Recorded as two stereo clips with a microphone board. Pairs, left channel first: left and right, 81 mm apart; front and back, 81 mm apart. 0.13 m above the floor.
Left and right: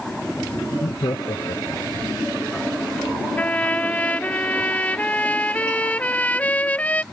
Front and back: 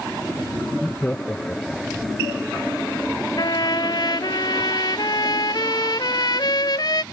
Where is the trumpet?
20° left.